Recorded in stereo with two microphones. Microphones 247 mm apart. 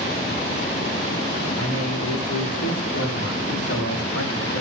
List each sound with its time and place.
1.6 s a man speaking: 75° left (ahead or behind), 9 m; by 4.6 s 70° left (ahead or behind), 7 m